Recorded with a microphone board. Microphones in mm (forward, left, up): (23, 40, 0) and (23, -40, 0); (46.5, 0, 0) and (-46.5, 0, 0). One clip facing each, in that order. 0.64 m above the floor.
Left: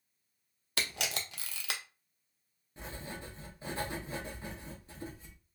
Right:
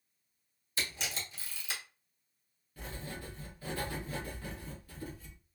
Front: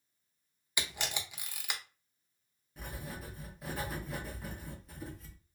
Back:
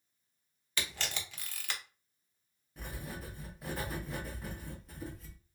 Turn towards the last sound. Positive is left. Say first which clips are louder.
# even, even
turn(degrees=90)